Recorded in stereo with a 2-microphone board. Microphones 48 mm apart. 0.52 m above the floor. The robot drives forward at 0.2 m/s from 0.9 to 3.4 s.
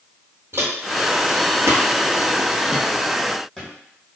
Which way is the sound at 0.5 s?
60° right (ahead or behind).